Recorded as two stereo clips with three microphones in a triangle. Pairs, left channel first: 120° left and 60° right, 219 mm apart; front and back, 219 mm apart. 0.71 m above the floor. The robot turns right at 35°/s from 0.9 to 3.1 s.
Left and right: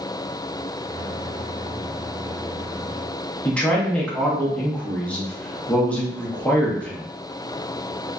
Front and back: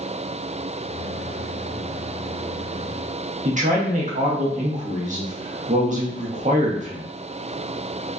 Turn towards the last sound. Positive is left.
turn(degrees=-160)